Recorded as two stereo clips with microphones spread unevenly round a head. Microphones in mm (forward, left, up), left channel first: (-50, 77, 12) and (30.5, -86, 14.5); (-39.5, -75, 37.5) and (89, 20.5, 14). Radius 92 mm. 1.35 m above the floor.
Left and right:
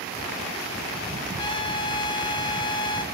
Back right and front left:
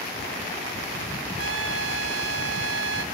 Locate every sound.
1.4 s a trumpet: 50° left, 1.1 m